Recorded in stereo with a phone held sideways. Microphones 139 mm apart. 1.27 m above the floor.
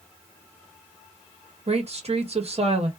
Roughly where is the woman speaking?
Right.